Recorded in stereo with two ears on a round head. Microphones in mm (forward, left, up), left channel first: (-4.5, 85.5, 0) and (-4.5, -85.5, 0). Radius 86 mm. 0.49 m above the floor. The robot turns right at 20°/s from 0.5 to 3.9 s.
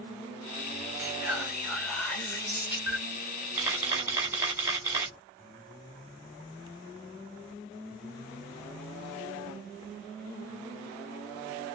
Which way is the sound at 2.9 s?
Centre (ahead or behind).